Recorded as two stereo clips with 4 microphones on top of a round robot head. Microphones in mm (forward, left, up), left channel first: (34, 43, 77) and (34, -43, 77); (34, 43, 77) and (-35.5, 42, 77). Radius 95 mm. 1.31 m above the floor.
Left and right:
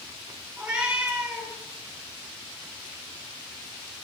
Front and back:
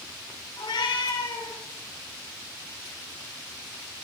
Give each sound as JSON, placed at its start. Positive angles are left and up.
{"t": 0.6, "sound": "a cat meowing", "azimuth_deg": -10, "distance_m": 9.5}